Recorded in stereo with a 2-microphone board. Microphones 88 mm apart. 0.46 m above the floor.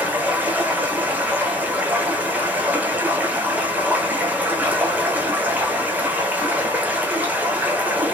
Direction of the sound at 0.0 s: 20° right (ahead or behind).